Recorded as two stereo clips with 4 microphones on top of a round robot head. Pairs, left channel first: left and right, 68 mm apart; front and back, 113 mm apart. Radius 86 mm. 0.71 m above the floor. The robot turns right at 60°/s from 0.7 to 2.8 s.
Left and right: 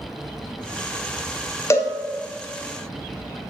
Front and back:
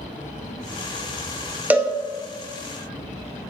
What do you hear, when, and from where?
1.7 s a cowbell: 105° left, 0.5 m; by 1.9 s 120° left, 0.5 m